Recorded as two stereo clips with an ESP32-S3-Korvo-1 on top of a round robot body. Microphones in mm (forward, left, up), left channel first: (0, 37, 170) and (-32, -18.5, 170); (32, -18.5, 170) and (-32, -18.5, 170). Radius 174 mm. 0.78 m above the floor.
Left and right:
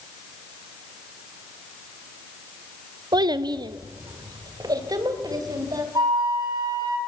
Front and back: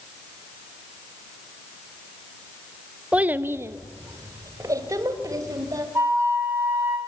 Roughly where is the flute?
Behind right.